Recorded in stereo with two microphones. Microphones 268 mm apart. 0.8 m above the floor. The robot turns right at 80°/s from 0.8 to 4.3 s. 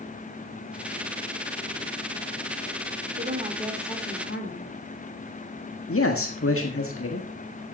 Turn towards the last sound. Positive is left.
turn(degrees=55)  # may be behind; listen again after turning